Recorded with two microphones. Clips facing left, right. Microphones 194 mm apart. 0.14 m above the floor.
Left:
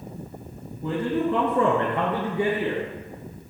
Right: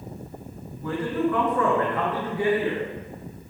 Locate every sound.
0.8 s a man speaking: 25° left (ahead or behind), 1.2 m